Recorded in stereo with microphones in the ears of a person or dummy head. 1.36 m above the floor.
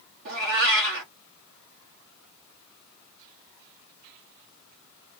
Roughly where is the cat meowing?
Right.